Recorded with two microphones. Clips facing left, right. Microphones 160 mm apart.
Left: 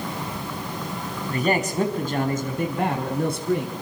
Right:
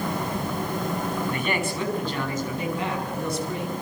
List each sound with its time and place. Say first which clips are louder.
1.3 s a man speaking: left 3 dB; 35° left (ahead or behind), 5 m; by 3.7 s 60° left (ahead or behind), 6.5 m